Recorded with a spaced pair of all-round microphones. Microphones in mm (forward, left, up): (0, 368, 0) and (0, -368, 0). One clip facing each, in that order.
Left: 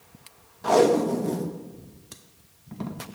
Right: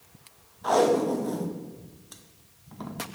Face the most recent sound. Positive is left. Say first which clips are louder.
# left 3 dB
turn(degrees=60)  # may be behind; listen again after turning